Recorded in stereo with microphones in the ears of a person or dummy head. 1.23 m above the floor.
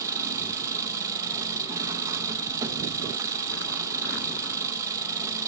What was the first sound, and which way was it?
An engine running, 15° right (ahead or behind).